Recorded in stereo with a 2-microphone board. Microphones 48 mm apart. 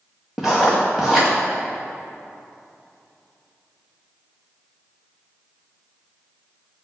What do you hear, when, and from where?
0.4 s writing: 5° right (ahead or behind), 2.5 m